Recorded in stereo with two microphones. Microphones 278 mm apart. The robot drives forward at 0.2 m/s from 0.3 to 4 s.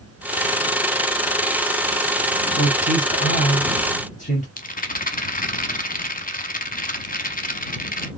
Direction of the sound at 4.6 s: 30° left (ahead or behind).